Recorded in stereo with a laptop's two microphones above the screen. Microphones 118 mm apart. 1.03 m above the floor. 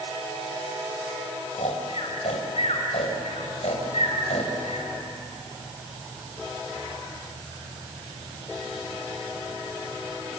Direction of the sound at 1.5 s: 80° left.